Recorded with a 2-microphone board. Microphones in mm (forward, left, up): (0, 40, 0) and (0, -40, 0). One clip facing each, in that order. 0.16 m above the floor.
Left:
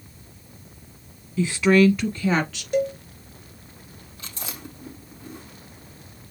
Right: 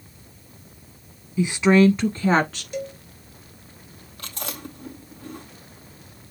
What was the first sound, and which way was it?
A woman speaking, 15° right (ahead or behind).